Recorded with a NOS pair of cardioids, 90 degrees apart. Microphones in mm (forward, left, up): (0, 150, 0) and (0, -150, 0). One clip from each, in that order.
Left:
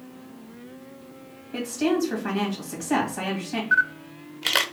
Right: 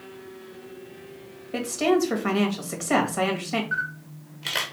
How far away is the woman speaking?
About 1.7 m.